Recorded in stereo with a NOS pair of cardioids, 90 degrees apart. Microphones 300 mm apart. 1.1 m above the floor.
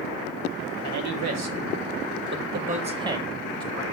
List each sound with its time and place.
0.8 s a man speaking: 70° right, 1.6 m; by 3.8 s 10° left, 1.1 m